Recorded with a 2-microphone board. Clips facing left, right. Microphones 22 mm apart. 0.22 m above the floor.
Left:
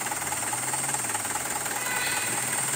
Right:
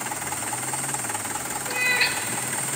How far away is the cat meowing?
About 0.6 m.